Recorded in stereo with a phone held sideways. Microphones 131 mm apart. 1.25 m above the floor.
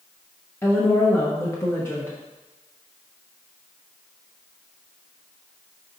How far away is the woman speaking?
About 1.1 m.